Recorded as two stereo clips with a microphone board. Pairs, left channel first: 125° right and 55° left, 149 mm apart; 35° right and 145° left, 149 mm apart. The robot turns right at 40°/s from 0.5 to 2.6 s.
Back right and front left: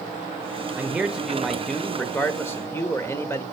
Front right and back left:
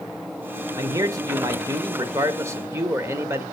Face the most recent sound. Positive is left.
turn(degrees=-170)